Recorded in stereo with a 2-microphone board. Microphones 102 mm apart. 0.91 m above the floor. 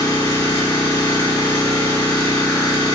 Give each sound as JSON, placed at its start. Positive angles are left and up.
{"t": 0.0, "sound": "an engine running", "side_deg": 35, "distance_m": 1.6}